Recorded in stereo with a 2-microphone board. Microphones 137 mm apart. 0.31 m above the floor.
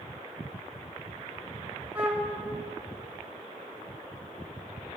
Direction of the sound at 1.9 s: 15° right (ahead or behind).